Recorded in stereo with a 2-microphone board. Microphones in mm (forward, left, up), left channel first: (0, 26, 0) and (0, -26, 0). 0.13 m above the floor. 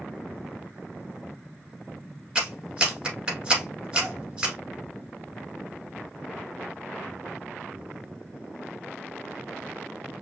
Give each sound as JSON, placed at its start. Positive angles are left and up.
{"t": 2.4, "sound": "a clap", "side_deg": -20, "distance_m": 1.7}